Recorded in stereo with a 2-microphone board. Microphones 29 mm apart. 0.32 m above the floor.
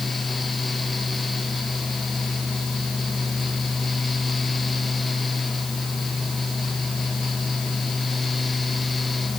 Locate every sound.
Only background noise.